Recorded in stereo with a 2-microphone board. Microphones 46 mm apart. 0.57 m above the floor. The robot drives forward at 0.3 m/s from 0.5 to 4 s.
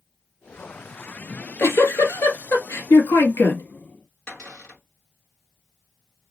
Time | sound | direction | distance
1.3 | a giggle | 75° left (ahead or behind) | 1.4 m
4.3 | a cupboard door | 20° left (ahead or behind) | 2.5 m